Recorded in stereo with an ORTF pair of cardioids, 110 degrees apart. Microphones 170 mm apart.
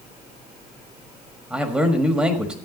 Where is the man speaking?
5° right, 1.5 m.